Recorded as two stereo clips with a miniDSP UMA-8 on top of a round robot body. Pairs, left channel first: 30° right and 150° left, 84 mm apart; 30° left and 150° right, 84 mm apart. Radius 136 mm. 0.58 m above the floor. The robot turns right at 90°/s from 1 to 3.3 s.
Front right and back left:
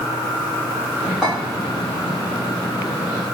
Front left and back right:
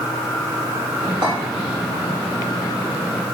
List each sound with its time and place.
1.2 s a clink: 120° right, 2.0 m; by 1.3 s 110° right, 2.0 m